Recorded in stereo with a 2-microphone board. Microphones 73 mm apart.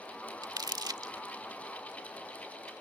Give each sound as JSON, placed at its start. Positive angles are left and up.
{"t": 0.4, "sound": "crumpling", "side_deg": -65}